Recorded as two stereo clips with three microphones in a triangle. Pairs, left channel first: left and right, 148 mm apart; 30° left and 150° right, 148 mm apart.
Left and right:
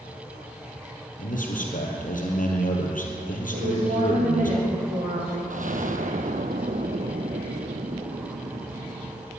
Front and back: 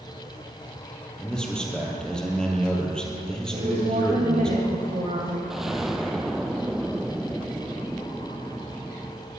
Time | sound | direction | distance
1.2 | a man speaking | 115° left | 3.5 m
3.5 | a woman speaking | 110° right | 6 m
5.5 | an explosion | 65° right | 1.1 m